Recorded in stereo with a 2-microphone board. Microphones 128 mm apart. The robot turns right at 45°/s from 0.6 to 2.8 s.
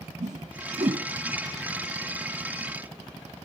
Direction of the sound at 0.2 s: 65° right (ahead or behind).